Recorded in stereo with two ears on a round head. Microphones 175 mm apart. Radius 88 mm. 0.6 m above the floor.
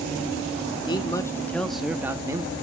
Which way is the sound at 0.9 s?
25° left (ahead or behind).